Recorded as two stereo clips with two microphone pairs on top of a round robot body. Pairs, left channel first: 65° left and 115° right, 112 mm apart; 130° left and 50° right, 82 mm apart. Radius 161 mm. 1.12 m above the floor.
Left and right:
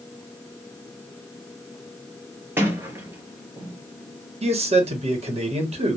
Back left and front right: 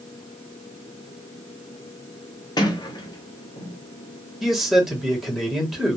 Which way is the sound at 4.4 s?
140° right.